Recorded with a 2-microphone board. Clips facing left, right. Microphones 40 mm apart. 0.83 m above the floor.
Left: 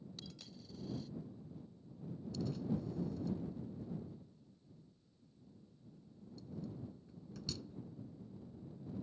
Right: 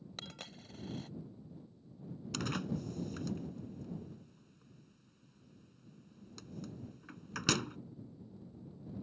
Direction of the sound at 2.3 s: 75° right (ahead or behind).